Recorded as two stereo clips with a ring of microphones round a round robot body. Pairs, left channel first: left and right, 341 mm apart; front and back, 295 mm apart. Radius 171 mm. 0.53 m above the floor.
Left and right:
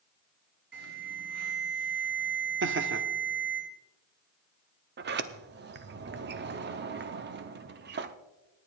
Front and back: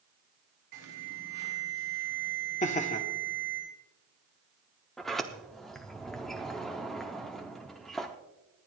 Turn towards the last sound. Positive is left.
turn(degrees=-90)